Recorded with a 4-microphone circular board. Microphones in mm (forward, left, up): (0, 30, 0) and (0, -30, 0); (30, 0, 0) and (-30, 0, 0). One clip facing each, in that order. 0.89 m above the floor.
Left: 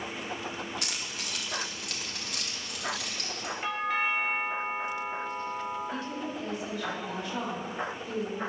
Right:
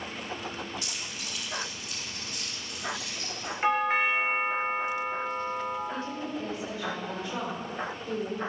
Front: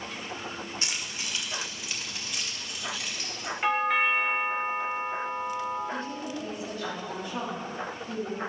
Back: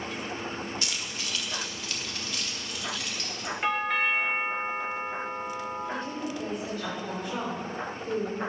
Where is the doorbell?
80° right, 1.0 m.